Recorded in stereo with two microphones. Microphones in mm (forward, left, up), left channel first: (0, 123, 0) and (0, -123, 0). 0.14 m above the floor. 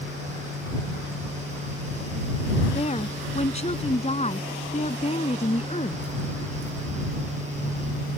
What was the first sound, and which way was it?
A woman speaking, 25° left (ahead or behind).